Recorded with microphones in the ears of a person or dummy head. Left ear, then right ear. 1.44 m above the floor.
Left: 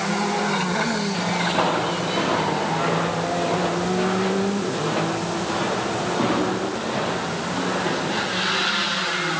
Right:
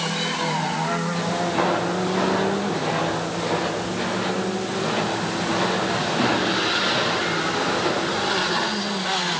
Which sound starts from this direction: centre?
Footsteps, at 1.1 s.